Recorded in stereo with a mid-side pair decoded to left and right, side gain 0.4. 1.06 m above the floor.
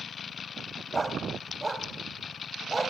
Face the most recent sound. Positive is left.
turn(degrees=-25)